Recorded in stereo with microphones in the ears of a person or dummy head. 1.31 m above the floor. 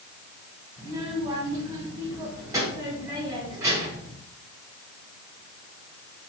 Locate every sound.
0.8 s a child speaking: 10° right (ahead or behind), 4.5 m